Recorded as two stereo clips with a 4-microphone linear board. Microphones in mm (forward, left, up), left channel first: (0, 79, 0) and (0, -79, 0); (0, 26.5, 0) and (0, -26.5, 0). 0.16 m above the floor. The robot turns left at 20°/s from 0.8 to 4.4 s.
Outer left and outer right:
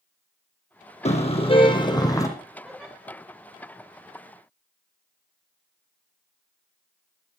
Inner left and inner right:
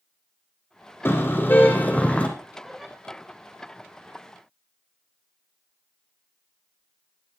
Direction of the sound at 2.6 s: Centre (ahead or behind).